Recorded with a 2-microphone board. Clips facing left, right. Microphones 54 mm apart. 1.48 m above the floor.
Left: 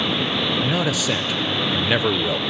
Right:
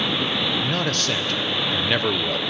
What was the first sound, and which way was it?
A man speaking, 10° left (ahead or behind).